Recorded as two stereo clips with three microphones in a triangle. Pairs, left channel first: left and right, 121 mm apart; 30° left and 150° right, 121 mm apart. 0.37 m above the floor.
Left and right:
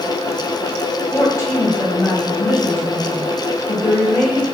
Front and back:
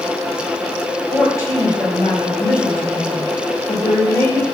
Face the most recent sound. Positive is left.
turn(degrees=65)